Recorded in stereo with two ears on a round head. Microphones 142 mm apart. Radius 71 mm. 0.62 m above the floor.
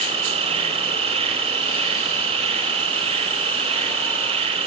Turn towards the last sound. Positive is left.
turn(degrees=-40)  # may be behind; listen again after turning